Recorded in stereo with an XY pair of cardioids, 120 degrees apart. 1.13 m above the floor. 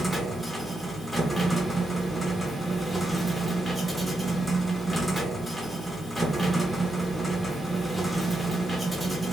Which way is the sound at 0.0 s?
5° right.